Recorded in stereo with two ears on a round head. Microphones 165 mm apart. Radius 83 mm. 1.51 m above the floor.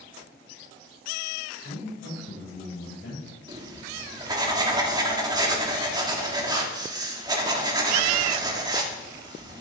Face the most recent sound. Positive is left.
turn(degrees=-25)  # may be behind; listen again after turning